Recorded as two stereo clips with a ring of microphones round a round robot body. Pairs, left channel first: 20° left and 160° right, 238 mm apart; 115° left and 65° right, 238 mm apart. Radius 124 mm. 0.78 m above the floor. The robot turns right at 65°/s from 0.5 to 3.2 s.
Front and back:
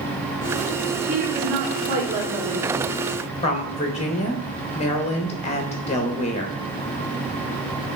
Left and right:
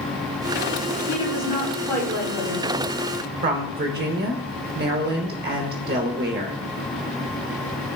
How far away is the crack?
I don't hear a crack.